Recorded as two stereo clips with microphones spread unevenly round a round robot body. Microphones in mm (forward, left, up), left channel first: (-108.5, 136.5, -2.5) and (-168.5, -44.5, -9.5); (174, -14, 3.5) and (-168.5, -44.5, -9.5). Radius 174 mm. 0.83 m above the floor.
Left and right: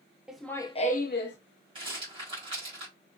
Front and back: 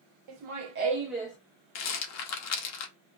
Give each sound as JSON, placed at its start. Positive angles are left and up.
{"t": 0.3, "sound": "laughter", "azimuth_deg": 165, "distance_m": 1.0}
{"t": 1.8, "sound": "a rattle", "azimuth_deg": -40, "distance_m": 0.6}